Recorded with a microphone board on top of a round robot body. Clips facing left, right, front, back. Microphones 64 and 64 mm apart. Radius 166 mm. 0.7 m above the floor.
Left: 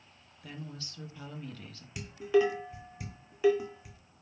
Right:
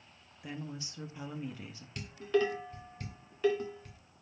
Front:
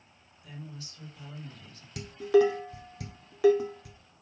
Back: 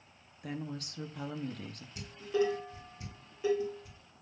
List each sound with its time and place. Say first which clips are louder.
0.4 s a woman speaking: right 2 dB, back 6 dB; 160° right, 1.6 m
2.0 s dishes clattering: left 4 dB, front 9 dB; 10° left, 1.8 m